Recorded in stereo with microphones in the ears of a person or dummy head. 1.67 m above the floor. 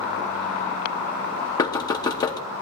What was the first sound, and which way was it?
Knocking, 20° left (ahead or behind).